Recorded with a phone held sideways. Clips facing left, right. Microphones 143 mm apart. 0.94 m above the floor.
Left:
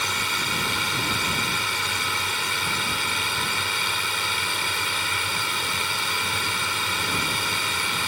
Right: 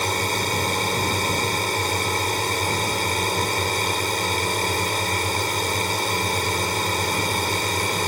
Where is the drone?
40° right (ahead or behind).